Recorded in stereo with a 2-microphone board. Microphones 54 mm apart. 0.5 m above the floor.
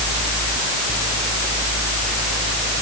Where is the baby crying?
No baby crying in this recording.